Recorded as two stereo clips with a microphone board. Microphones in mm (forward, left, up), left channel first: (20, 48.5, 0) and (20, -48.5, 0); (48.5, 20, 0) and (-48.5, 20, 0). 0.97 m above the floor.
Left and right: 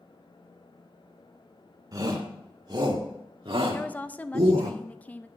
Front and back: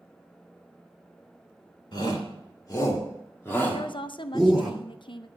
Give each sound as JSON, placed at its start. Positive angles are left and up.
{"t": 1.9, "sound": "a shout", "azimuth_deg": -40, "distance_m": 2.5}
{"t": 3.7, "sound": "a woman speaking", "azimuth_deg": 20, "distance_m": 0.6}